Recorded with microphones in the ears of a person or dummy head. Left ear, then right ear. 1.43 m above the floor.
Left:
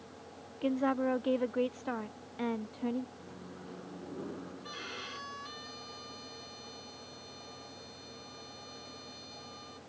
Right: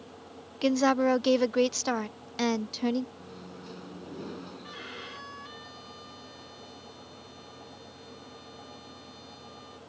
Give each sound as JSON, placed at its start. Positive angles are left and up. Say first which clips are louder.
{"t": 0.6, "sound": "a woman speaking", "louder": "right 7 dB", "side_deg": -85}
{"t": 3.2, "sound": "a microwave", "louder": "right 3 dB", "side_deg": -75}
{"t": 4.6, "sound": "a violin", "louder": "left 1 dB", "side_deg": -15}